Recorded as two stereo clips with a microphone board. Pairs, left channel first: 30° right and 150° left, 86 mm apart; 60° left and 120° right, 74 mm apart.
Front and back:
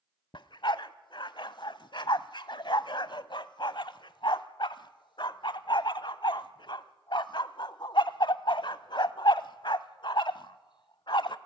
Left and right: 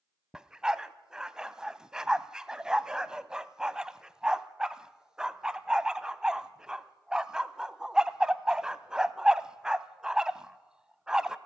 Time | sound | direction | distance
0.3 | a dog barking | 40° right | 0.7 m